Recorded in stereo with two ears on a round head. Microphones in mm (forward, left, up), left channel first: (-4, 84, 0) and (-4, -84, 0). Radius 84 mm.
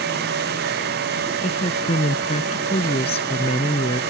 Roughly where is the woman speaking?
Left.